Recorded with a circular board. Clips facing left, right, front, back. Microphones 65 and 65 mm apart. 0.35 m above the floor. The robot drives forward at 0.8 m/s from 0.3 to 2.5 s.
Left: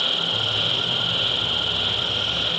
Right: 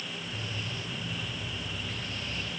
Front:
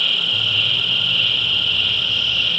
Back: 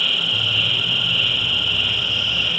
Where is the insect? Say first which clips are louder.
Left 12 dB, even; 95° left; by 2.6 s 100° left.